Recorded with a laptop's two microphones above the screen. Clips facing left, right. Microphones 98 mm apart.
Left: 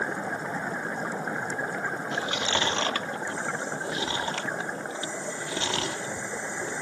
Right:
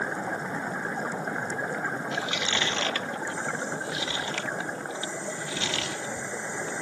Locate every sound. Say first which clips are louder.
2.1 s chewing: left 2 dB; 40° left (ahead or behind)